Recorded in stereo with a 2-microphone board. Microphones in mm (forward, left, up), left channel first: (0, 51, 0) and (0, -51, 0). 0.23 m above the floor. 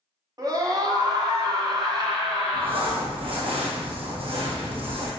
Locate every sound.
0.4 s a scream: 40° right (ahead or behind), 1.6 m; by 3.1 s 45° right (ahead or behind), 2.5 m
2.5 s crumpling: 65° right (ahead or behind), 2.5 m